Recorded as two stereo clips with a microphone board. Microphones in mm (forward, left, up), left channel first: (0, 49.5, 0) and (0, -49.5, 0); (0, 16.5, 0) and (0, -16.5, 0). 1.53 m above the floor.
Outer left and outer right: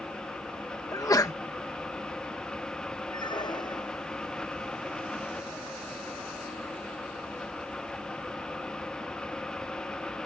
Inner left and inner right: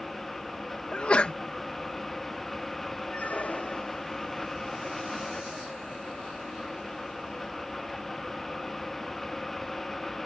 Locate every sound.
0.9 s a sneeze: 35° left (ahead or behind)
3.1 s a squeak: 50° left (ahead or behind)